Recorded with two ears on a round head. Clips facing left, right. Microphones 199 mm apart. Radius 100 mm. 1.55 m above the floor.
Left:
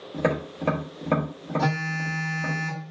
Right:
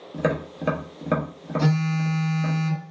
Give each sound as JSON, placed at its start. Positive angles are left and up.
{"t": 0.1, "sound": "tapping", "side_deg": -10, "distance_m": 0.7}
{"t": 1.6, "sound": "a phone buzzing", "side_deg": -35, "distance_m": 1.4}